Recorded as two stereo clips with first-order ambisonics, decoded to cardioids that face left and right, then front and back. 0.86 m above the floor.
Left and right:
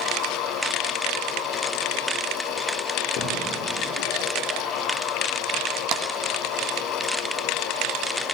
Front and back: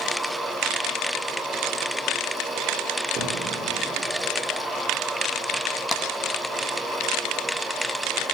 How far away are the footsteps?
About 9.5 m.